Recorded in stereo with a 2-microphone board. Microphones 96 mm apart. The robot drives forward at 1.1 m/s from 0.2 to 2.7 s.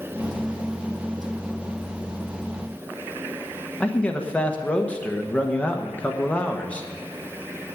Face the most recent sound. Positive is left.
turn(degrees=15)  # may be behind; listen again after turning